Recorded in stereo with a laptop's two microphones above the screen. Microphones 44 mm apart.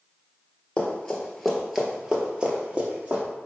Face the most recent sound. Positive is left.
turn(degrees=-35)  # may be behind; listen again after turning